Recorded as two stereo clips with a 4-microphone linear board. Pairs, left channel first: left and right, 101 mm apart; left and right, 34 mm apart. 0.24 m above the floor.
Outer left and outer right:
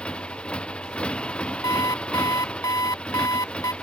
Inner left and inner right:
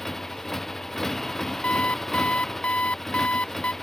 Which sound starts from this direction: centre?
A motorcycle, at 0.0 s.